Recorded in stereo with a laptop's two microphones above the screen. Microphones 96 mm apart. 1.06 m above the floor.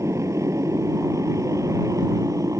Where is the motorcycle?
30° right (ahead or behind); by 2.6 s 35° right (ahead or behind).